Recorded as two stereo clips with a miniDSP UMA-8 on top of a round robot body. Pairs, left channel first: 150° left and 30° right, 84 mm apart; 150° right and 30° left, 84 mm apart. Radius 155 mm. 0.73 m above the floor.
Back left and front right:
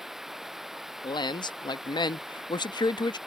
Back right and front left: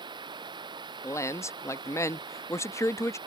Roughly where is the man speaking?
Behind.